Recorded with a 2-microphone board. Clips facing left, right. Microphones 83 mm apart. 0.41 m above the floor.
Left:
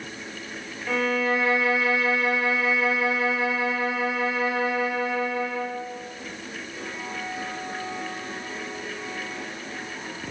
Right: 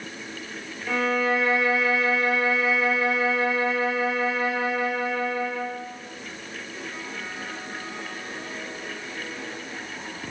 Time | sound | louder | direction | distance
0.9 | a violin | even | centre (ahead or behind) | 0.6 m